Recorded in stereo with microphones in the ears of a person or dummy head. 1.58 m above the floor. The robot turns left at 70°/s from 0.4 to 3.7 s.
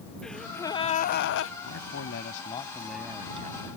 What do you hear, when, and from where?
0.2 s a gasp: 175° left; by 1.5 s 95° left
1.6 s a man speaking: 90° left; by 3.7 s 50° right